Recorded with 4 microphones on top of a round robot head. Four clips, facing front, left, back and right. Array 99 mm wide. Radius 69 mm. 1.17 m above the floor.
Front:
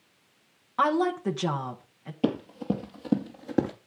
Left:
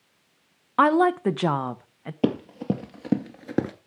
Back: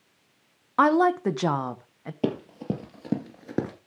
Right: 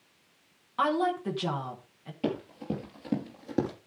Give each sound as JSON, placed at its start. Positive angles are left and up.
{"t": 0.8, "sound": "a woman speaking", "azimuth_deg": 125, "distance_m": 1.0}
{"t": 2.2, "sound": "running footsteps", "azimuth_deg": 105, "distance_m": 2.0}